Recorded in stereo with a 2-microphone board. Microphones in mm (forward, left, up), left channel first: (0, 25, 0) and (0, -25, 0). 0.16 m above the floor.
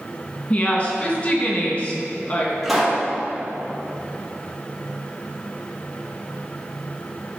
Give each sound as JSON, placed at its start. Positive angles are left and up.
{"t": 0.5, "sound": "a woman speaking", "side_deg": 35, "distance_m": 1.9}
{"t": 2.6, "sound": "a pop", "side_deg": -5, "distance_m": 3.0}